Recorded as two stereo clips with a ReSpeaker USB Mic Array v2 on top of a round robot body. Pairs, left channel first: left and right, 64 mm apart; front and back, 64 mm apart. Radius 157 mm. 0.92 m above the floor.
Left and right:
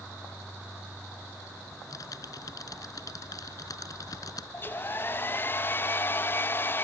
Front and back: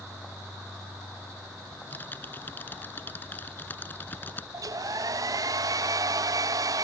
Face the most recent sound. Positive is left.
turn(degrees=150)